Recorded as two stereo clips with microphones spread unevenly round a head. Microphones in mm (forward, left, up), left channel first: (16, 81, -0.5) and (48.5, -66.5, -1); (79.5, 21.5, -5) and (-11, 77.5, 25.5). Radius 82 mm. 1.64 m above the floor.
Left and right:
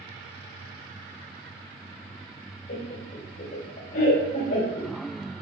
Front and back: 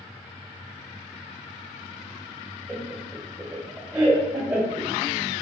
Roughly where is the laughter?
Left.